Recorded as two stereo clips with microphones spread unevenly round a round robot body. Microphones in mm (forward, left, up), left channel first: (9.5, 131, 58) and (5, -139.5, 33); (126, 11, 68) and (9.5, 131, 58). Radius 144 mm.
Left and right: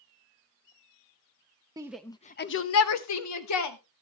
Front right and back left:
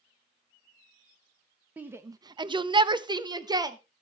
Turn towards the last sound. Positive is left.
turn(degrees=70)